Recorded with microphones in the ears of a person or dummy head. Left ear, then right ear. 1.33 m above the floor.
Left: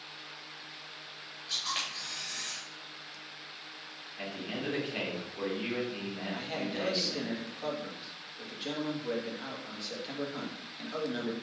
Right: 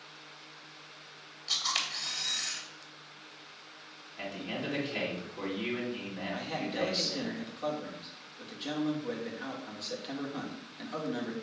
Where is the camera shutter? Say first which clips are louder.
Right 3 dB; 30° right (ahead or behind), 2.5 m.